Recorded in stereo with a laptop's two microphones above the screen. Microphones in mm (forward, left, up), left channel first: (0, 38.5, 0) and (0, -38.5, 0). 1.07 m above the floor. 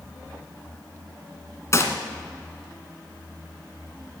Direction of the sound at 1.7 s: 40° left (ahead or behind).